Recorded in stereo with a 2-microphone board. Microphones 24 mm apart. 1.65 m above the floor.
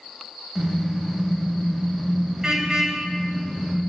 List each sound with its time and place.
0.6 s a car horn: 20° right (ahead or behind), 3.5 m